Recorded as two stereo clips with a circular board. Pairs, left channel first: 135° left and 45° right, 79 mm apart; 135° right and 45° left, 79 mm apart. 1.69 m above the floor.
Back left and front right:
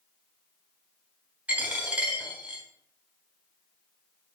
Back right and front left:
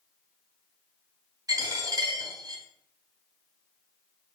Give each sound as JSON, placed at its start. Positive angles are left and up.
{"t": 1.5, "sound": "a dropped coin", "azimuth_deg": 25, "distance_m": 3.0}